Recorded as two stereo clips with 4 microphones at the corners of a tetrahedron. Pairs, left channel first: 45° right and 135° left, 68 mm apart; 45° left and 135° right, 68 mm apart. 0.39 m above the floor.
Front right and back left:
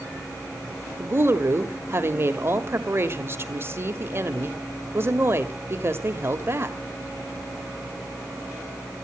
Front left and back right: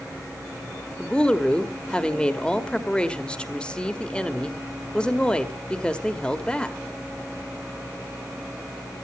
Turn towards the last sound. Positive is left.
turn(degrees=110)